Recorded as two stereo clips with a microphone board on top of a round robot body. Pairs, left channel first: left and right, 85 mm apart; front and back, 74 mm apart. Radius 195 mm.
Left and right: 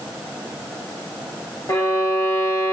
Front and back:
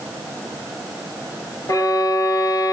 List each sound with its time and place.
1.7 s a violin: 35° left, 2.5 m